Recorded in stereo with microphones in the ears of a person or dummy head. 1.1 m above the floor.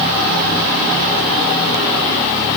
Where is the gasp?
No gasp in this recording.